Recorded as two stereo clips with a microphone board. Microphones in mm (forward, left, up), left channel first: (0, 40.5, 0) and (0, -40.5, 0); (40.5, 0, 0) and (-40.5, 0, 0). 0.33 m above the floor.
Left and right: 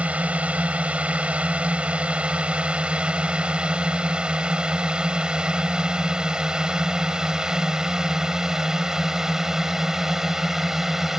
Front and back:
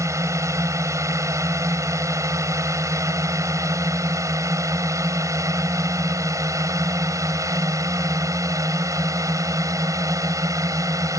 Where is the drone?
155° right; by 11.2 s 175° right.